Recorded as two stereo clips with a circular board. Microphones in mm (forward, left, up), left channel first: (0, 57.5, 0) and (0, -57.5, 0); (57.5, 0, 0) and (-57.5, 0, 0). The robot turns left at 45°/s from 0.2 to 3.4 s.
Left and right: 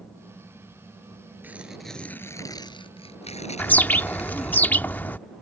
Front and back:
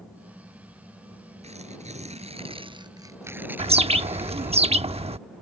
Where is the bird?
165° left.